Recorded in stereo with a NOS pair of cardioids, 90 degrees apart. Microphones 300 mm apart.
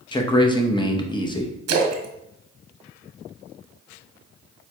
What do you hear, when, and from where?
0.1 s a man speaking: 15° left, 0.9 m
1.7 s a splash: 65° right, 0.9 m